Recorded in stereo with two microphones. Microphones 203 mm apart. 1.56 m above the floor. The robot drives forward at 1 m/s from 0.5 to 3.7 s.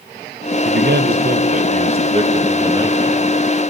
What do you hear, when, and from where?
0.7 s a man speaking: 75° right (ahead or behind), 0.9 m; by 3.3 s 15° right (ahead or behind), 3 m